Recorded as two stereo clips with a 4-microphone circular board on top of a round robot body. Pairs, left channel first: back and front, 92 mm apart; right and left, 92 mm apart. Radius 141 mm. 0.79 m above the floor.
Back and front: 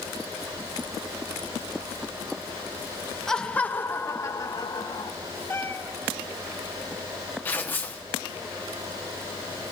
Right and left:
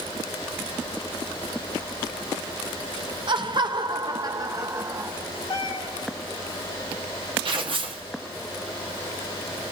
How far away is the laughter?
About 1.5 m.